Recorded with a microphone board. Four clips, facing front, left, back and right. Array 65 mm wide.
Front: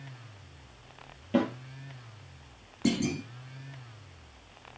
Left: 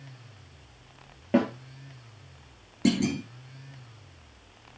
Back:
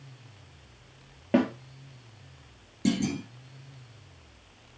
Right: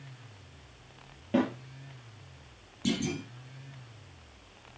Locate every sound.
1.3 s a snare drum: 150° left, 4.5 m
2.9 s a clunk: 90° left, 5 m